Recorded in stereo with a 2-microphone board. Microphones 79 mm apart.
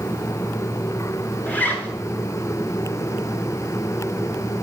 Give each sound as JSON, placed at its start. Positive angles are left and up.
{"t": 1.5, "sound": "a zipper", "side_deg": 20, "distance_m": 1.4}